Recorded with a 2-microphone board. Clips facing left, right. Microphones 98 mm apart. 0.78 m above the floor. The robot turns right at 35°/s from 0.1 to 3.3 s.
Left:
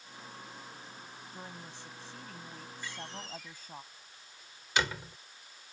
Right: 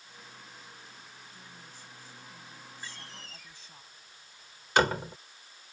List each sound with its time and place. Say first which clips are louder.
1.3 s a woman speaking: left 5 dB; 60° left; by 3.8 s 130° left
2.8 s a door slam: left 6 dB; 35° right (ahead or behind); by 5.2 s 50° right (ahead or behind)